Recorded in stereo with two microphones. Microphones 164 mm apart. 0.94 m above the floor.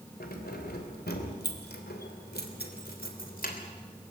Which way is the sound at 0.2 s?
70° left (ahead or behind).